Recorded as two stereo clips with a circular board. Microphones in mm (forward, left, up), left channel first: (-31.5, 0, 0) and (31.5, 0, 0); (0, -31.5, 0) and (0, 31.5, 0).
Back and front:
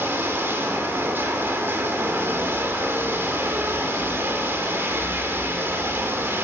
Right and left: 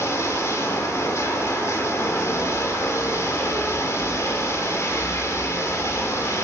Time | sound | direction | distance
0.0 | running water | 50° right | 3 m